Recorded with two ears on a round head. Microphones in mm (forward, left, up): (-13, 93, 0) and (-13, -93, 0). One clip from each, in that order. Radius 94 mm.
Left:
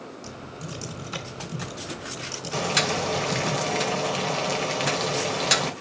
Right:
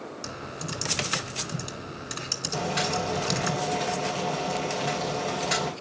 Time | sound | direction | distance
0.2 | typing on a keyboard | 40° right (ahead or behind) | 6.5 m
2.5 | boiling | 65° left (ahead or behind) | 2.5 m